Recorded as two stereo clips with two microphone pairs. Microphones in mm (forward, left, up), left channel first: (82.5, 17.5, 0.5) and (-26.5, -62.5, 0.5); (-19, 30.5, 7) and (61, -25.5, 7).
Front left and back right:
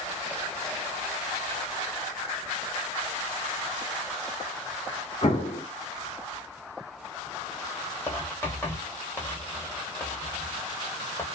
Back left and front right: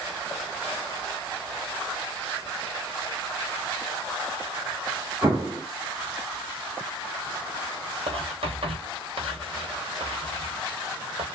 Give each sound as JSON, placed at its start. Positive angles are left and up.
{"t": 5.2, "sound": "an explosion", "azimuth_deg": 20, "distance_m": 1.2}
{"t": 8.1, "sound": "writing", "azimuth_deg": -35, "distance_m": 1.0}